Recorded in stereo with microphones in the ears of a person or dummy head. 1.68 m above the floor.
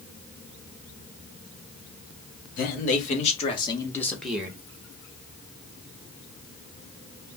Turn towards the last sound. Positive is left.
turn(degrees=-15)  # may be behind; listen again after turning